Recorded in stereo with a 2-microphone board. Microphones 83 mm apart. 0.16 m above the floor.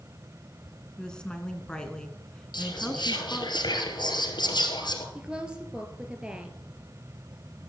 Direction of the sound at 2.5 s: 65° left (ahead or behind).